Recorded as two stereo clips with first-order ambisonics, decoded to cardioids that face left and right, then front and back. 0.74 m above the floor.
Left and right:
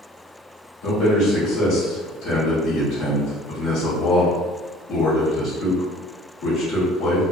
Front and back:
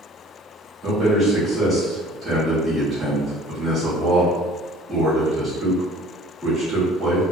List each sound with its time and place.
0.8 s a man speaking: 115° left, 1.4 m